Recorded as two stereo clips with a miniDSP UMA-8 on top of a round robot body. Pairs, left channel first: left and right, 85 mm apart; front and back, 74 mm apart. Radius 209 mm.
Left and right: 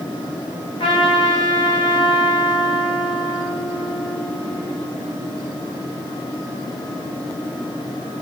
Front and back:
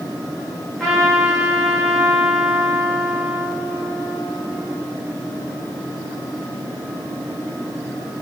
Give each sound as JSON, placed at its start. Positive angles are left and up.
{"t": 0.8, "sound": "a trumpet", "azimuth_deg": 85, "distance_m": 2.0}